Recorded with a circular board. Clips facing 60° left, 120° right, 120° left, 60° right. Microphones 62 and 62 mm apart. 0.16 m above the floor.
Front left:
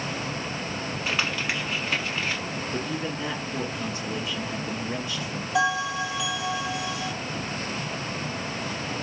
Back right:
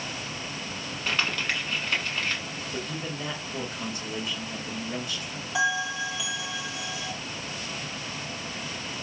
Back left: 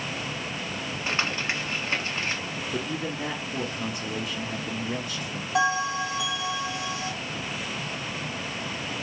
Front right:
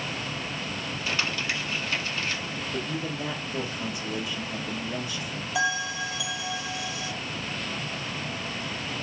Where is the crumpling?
135° left, 1.1 m.